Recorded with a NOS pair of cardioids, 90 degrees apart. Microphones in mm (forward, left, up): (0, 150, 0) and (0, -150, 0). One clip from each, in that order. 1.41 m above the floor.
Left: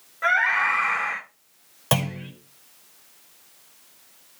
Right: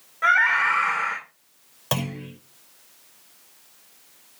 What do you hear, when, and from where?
0.2 s a scream: 15° right, 6 m
1.9 s a clunk: 20° left, 5.5 m